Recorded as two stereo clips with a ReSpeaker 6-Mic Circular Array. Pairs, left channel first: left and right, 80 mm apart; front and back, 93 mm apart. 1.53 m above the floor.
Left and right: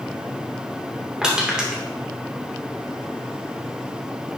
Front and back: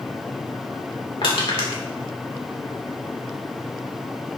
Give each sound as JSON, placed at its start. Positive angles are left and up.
{"t": 1.2, "sound": "crushing", "azimuth_deg": -10, "distance_m": 2.5}